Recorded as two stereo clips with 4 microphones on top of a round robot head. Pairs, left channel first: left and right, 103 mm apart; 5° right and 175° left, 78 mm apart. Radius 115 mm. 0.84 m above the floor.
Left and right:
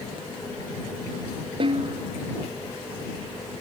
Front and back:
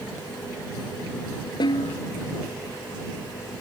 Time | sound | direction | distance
1.6 | a snare drum | 45° right | ?